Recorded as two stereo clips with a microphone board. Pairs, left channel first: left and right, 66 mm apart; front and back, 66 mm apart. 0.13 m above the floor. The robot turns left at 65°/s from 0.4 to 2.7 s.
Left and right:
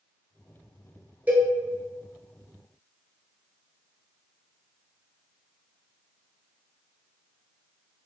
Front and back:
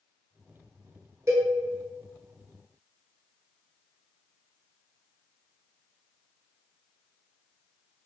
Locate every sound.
1.3 s a cowbell: 145° right, 0.7 m; by 1.5 s 160° right, 0.7 m